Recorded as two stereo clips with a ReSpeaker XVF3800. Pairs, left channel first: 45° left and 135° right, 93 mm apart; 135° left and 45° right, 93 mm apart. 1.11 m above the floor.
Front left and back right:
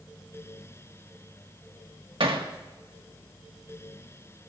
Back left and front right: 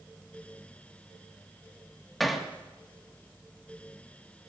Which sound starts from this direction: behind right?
Hammering, at 2.2 s.